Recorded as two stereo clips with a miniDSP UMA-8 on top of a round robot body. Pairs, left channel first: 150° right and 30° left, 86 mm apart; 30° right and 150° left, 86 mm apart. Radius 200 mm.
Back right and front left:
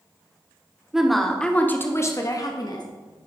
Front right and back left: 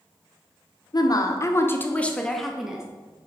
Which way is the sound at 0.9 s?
55° right.